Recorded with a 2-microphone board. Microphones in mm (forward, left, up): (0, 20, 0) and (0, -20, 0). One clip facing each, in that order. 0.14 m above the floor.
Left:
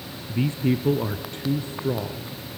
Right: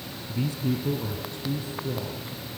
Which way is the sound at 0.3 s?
35° left (ahead or behind).